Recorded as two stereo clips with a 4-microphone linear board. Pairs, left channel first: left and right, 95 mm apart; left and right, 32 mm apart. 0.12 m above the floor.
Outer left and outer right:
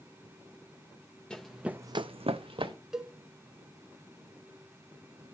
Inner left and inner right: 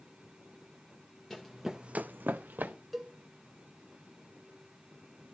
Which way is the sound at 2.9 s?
5° right (ahead or behind).